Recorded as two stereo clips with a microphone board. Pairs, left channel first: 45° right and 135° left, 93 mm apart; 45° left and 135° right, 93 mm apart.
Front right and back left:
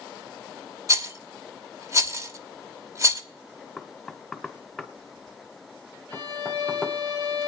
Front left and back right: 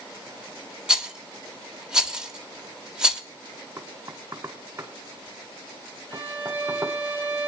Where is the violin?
95° left, 7 m.